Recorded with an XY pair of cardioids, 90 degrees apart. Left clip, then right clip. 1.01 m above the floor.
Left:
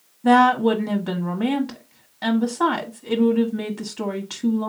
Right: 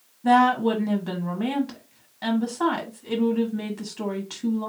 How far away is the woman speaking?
About 1.0 m.